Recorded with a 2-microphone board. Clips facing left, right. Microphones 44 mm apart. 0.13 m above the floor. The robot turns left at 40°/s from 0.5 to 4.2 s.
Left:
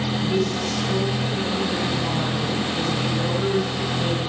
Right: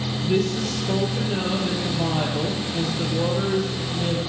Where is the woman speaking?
35° right, 3.5 m; by 4.2 s 175° left, 3.5 m.